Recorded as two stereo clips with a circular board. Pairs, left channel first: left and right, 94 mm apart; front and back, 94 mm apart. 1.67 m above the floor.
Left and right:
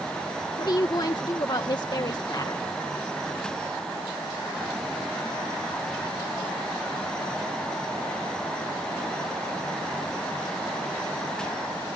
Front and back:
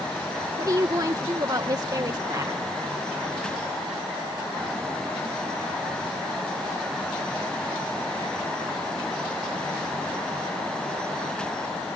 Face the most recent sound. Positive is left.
turn(degrees=130)